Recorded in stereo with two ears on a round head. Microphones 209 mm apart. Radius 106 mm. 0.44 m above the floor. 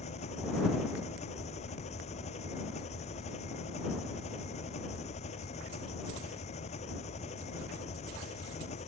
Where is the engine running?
30° left (ahead or behind).